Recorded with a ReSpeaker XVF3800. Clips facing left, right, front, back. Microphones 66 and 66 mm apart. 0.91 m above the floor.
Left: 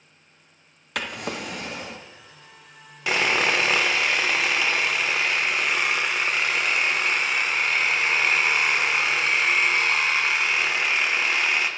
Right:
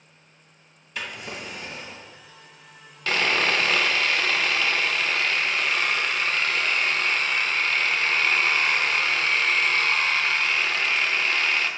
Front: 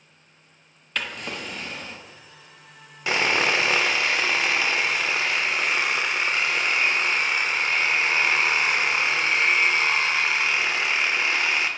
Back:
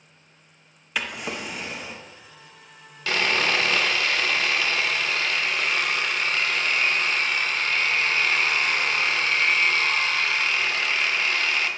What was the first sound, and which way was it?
A drawer, 100° left.